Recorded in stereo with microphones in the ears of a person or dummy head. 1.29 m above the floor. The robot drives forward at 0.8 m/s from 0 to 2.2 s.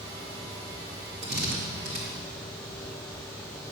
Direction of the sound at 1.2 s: 55° right (ahead or behind).